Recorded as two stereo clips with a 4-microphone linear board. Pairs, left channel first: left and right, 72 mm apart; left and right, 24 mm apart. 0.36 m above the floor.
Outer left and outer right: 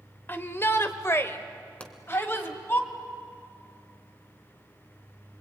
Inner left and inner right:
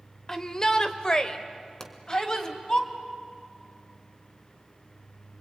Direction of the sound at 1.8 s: 20° left (ahead or behind).